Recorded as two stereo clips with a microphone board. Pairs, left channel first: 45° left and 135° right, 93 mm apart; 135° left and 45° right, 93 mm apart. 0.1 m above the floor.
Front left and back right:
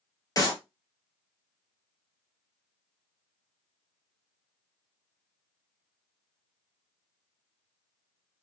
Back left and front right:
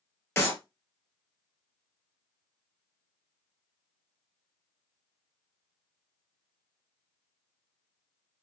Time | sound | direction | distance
0.4 | a clap | 75° left | 1.4 m